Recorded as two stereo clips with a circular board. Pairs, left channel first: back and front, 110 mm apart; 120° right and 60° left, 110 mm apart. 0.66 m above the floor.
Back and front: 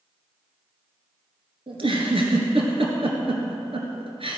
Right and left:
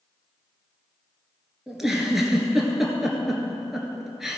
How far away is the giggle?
About 1.5 m.